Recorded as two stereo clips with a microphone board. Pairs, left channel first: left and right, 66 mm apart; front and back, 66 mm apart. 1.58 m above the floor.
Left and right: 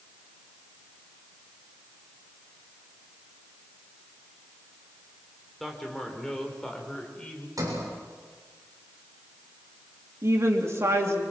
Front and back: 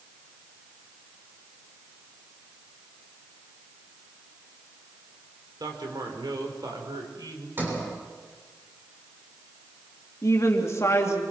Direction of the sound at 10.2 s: 45° right.